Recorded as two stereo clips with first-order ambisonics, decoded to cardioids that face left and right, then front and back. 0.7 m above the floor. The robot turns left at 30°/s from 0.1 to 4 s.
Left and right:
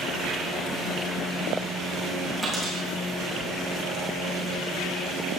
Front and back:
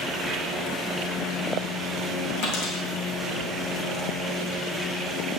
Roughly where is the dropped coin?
Ahead.